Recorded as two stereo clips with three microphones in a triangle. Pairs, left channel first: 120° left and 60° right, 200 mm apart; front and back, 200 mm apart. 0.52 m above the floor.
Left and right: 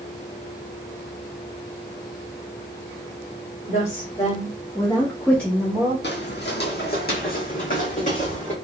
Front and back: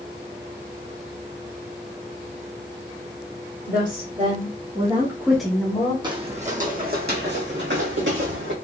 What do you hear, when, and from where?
3.7 s a woman speaking: 170° left, 2 m; by 5.9 s 5° left, 1.2 m
6.0 s footsteps: 115° left, 0.9 m; by 8.5 s 170° left, 1.9 m